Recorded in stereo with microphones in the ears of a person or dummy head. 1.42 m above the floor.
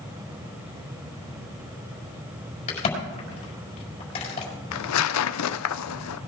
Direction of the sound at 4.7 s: 85° left.